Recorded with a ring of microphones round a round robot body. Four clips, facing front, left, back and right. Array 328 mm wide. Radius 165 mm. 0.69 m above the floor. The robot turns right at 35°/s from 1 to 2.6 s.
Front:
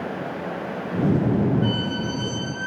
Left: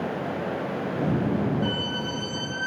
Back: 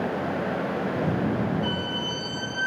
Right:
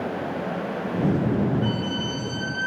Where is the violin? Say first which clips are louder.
Right 2 dB, front 4 dB; 10° right, 1.6 m; by 2.7 s 25° left, 1.6 m.